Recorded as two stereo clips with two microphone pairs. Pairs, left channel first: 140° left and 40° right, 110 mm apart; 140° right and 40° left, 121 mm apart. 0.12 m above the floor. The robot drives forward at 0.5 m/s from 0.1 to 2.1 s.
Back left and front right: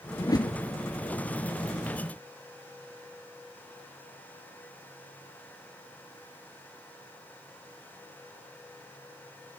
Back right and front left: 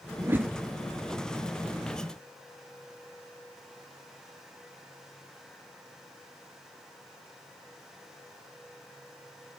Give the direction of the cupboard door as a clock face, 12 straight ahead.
I don't hear a cupboard door.